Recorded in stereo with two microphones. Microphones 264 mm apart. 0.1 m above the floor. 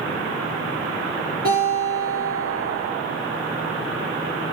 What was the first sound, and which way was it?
A guitar, 35° right (ahead or behind).